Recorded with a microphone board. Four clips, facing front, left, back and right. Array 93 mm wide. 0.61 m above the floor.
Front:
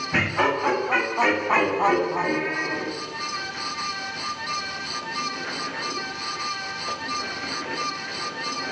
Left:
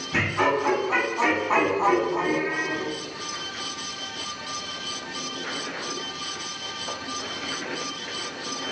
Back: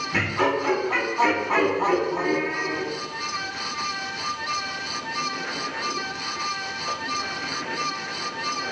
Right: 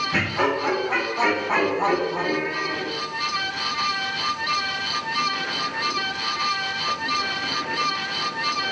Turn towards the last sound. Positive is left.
turn(degrees=-30)